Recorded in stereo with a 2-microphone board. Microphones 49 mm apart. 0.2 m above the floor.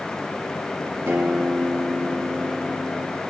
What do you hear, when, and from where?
1.1 s a guitar: 70° right (ahead or behind), 3.5 m